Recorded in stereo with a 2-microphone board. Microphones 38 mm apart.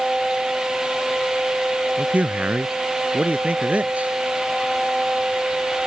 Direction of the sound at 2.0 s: 45° right (ahead or behind).